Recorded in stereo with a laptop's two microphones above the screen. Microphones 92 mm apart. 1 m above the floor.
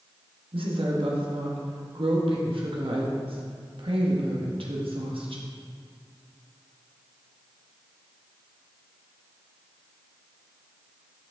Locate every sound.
0.5 s a woman speaking: 75° right (ahead or behind), 1.3 m